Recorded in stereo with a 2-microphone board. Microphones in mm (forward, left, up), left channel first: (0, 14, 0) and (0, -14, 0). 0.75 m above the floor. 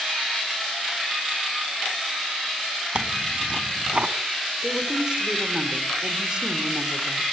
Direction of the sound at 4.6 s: 35° right (ahead or behind).